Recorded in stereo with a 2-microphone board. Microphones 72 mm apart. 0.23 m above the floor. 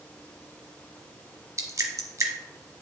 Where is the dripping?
50° right (ahead or behind), 1.1 m.